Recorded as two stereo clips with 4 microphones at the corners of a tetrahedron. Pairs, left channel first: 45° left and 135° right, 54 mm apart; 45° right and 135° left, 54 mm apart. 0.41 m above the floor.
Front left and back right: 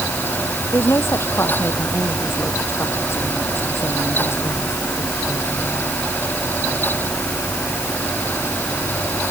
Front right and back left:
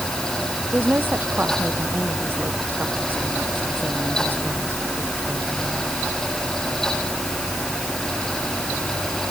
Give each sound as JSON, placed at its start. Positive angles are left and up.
{"t": 0.7, "sound": "a woman speaking", "azimuth_deg": 85}